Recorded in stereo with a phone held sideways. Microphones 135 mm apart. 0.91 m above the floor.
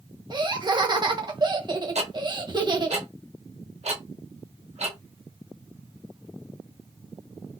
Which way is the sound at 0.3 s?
35° right (ahead or behind).